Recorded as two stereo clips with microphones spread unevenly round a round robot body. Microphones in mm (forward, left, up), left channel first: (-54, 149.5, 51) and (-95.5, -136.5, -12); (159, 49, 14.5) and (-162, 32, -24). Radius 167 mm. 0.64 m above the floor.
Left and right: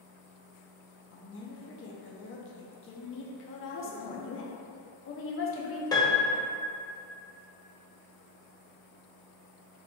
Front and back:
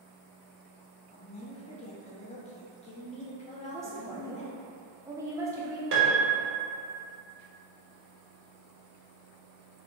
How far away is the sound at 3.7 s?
About 0.7 m.